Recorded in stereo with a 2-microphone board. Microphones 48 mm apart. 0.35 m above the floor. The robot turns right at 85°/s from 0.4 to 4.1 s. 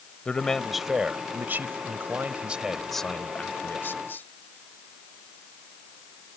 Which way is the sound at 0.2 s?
150° left.